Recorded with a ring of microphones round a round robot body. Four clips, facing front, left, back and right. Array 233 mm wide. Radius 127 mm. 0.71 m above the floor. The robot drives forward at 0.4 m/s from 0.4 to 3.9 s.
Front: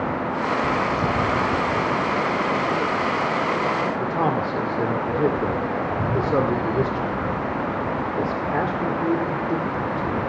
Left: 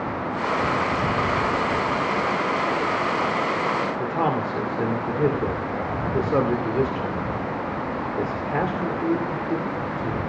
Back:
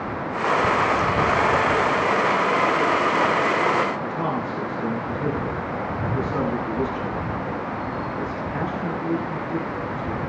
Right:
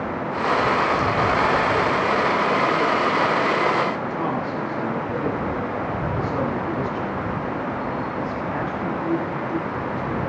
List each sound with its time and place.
4.0 s a man speaking: 45° left, 2.5 m